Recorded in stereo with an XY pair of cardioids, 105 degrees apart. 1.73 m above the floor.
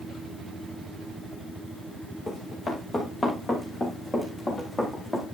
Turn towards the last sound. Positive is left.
turn(degrees=25)